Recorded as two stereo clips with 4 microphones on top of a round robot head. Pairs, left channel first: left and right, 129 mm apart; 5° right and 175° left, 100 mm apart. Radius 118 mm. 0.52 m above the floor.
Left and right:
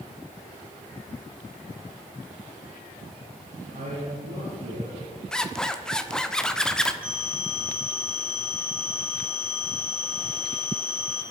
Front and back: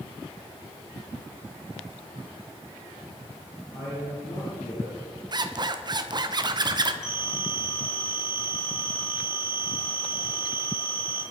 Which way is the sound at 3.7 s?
65° right.